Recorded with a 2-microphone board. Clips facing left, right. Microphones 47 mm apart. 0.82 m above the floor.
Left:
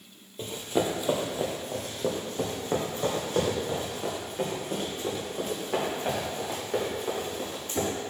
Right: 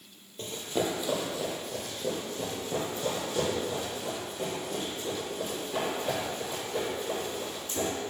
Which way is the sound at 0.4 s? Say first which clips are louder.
Left 3 dB; 10° left (ahead or behind).